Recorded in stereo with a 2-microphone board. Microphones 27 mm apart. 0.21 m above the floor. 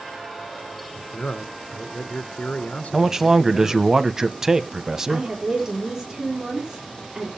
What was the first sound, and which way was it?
A man speaking, 60° left (ahead or behind).